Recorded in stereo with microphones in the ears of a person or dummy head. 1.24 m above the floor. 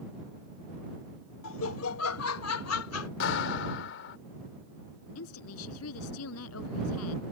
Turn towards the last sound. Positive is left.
turn(degrees=85)